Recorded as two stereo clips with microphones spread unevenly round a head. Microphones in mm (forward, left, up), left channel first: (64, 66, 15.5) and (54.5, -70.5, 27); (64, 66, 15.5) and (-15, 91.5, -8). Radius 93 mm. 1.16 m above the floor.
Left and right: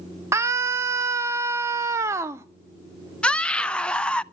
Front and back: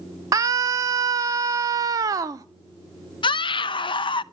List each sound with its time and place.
0.3 s a scream: 165° right, 0.5 m
3.2 s a scream: 5° left, 0.7 m